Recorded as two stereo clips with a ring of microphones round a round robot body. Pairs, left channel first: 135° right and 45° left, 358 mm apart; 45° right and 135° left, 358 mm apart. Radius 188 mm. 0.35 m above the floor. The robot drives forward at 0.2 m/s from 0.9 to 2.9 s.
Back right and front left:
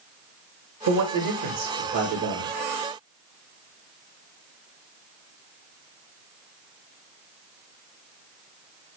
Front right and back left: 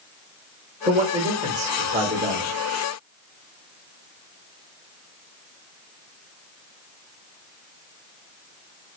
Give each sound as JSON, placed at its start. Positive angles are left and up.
{"t": 0.9, "sound": "a man speaking", "azimuth_deg": 65, "distance_m": 1.4}